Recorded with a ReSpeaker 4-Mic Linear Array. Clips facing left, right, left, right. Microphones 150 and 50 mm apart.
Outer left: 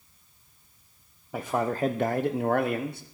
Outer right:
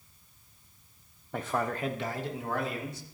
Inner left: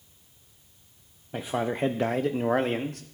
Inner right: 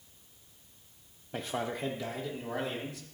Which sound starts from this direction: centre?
A man speaking, at 1.3 s.